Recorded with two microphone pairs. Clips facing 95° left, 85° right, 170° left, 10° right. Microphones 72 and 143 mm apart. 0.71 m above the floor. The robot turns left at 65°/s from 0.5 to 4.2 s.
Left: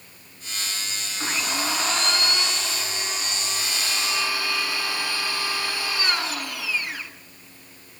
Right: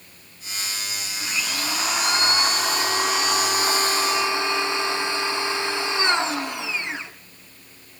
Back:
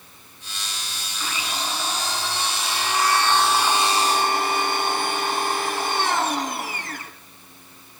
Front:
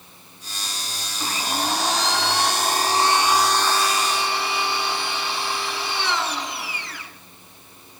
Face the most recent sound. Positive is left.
turn(degrees=-150)